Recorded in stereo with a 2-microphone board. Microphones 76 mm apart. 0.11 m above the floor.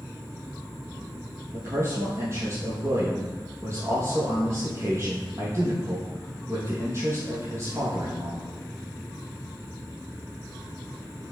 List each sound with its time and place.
1.5 s a man speaking: 40° right (ahead or behind), 3 m